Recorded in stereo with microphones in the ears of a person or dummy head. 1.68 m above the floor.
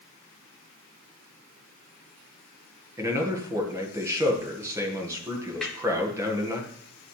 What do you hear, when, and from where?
3.0 s a man speaking: 15° right (ahead or behind), 1.7 m
5.6 s a snare drum: 5° left (ahead or behind), 1.8 m